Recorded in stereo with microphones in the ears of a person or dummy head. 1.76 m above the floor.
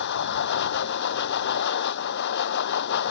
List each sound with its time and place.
0.0 s a machine running: 55° left (ahead or behind)